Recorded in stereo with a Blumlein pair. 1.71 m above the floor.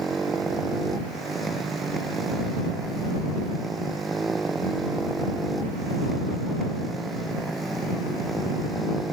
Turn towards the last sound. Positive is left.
turn(degrees=-5)